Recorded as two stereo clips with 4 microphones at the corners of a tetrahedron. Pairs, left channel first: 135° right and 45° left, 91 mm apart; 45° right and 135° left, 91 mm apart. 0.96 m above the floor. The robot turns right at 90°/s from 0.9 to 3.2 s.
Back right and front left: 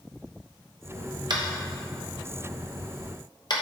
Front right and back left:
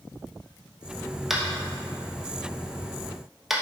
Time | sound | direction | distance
1.3 | tapping | 50° left | 1.0 m